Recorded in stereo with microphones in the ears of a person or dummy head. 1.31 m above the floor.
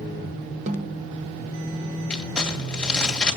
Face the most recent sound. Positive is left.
turn(degrees=5)  # may be behind; listen again after turning